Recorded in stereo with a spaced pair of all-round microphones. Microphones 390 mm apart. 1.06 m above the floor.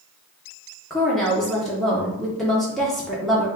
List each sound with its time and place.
0.9 s a woman speaking: centre (ahead or behind), 0.6 m